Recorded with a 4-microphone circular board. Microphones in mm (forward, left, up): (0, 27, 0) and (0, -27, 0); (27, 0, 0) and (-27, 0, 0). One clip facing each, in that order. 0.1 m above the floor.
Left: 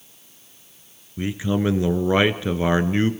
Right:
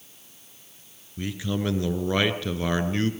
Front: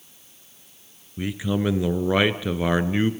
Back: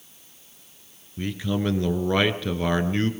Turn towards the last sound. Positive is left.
turn(degrees=60)